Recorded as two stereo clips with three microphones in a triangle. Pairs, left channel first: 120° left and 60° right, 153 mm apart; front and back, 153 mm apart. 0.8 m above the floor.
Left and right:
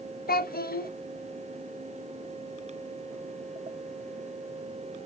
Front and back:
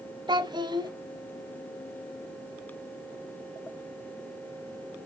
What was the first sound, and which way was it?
A child speaking, 115° left.